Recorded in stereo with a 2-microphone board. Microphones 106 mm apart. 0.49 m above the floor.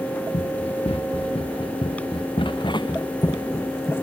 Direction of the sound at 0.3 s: 70° left (ahead or behind).